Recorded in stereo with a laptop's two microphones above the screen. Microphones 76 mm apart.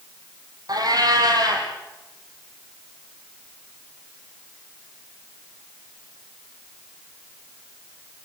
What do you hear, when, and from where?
0.7 s a cat meowing: 55° right (ahead or behind), 4.5 m